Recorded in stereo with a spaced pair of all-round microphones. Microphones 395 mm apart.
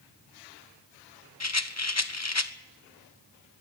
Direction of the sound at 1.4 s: 40° left (ahead or behind).